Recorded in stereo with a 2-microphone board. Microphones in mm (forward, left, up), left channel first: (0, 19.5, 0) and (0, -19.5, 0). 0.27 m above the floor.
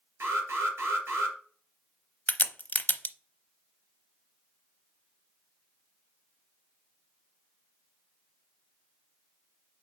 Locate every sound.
0.2 s an alarm: 75° right (ahead or behind), 3.5 m
2.3 s a crack: 45° left (ahead or behind), 0.7 m